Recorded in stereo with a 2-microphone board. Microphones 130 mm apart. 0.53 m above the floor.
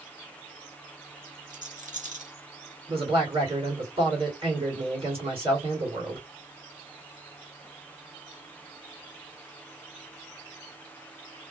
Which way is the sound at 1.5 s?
75° right (ahead or behind).